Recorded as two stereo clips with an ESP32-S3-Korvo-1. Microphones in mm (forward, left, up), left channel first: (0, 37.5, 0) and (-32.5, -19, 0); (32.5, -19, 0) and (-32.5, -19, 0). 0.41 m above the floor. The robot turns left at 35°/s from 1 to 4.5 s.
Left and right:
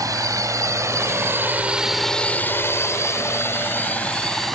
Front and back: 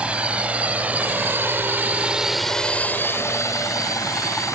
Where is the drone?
110° right; by 4.5 s 25° right.